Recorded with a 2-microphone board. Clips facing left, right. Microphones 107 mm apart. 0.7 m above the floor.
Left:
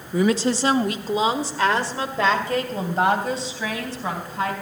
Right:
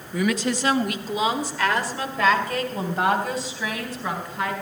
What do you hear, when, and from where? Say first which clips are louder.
0.1 s a woman speaking: left 4 dB; 30° left (ahead or behind), 0.7 m